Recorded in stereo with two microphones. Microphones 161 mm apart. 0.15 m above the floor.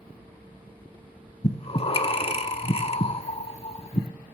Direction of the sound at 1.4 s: 40° left (ahead or behind).